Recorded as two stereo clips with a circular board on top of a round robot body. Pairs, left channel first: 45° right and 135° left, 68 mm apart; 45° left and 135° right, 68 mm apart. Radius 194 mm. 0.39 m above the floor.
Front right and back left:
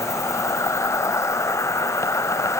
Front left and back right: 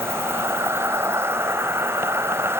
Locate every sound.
0.0 s an insect: 85° right